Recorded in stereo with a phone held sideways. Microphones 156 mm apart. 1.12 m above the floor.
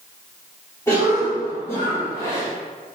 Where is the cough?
15° left (ahead or behind), 3.5 m.